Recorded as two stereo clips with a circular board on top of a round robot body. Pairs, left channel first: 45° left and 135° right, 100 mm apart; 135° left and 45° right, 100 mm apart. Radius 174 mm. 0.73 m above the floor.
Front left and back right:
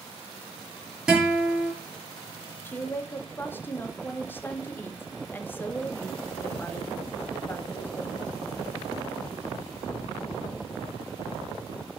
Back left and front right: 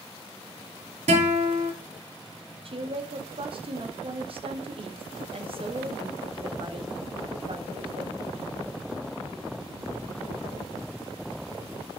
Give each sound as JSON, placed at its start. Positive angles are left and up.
{"t": 1.1, "sound": "a guitar", "azimuth_deg": -50, "distance_m": 5.5}
{"t": 2.6, "sound": "a woman speaking", "azimuth_deg": -25, "distance_m": 1.9}